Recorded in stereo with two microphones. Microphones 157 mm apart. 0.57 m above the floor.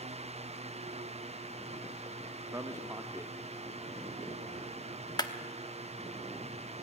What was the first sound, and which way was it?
A man speaking, 20° right (ahead or behind).